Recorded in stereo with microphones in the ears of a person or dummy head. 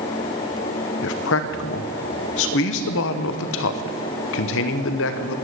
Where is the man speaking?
60° left (ahead or behind), 0.9 m.